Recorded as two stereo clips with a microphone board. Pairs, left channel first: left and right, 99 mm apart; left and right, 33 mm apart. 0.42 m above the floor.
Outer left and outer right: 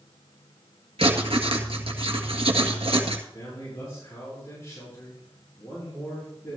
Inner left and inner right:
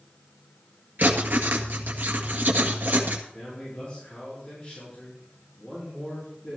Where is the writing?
70° right (ahead or behind), 1.7 m.